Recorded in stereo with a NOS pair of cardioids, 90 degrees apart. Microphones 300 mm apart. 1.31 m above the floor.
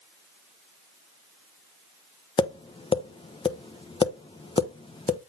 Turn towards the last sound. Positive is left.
turn(degrees=15)